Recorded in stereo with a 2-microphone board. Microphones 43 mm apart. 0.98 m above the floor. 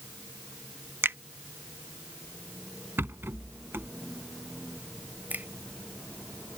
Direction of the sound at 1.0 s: 80° right.